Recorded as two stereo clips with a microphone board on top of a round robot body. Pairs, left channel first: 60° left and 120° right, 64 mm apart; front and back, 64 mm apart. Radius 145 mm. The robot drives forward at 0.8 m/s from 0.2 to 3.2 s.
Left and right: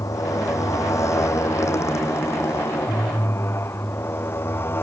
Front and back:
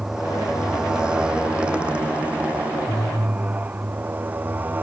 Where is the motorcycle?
95° left; by 4.8 s 115° left.